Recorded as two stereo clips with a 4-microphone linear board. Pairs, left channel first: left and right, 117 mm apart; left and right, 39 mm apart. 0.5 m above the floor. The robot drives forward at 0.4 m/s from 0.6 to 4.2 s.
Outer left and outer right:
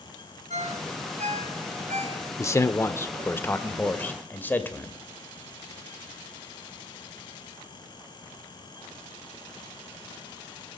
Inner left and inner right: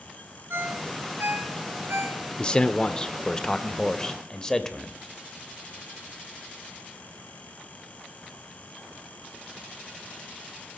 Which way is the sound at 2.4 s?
25° left (ahead or behind).